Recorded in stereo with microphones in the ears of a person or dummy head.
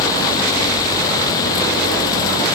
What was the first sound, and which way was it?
Only background noise.